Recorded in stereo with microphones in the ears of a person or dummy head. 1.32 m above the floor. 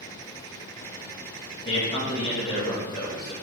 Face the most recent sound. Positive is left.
turn(degrees=30)  # may be behind; listen again after turning